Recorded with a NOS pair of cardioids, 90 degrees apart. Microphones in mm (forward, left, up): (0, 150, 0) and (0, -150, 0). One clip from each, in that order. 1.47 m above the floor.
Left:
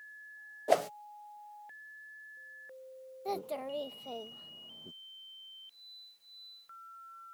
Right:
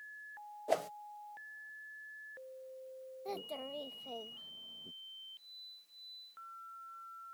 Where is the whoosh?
30° left.